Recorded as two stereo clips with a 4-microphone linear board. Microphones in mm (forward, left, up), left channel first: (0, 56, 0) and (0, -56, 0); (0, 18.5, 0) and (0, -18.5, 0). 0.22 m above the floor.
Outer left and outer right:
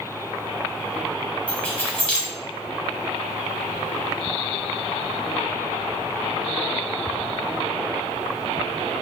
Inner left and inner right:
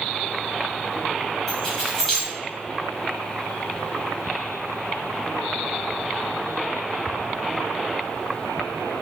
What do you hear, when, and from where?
1.5 s keys jangling: 15° left (ahead or behind), 0.9 m